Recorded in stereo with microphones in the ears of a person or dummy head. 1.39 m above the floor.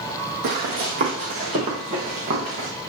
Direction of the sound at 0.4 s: 40° right (ahead or behind).